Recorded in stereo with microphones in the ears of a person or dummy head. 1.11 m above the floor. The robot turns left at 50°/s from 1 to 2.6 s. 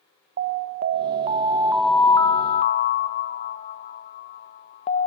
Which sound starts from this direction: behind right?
An alarm, at 0.4 s.